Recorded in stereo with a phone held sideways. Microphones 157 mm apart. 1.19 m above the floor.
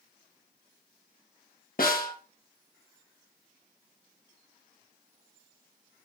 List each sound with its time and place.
1.8 s a snare drum: 65° left (ahead or behind), 1.6 m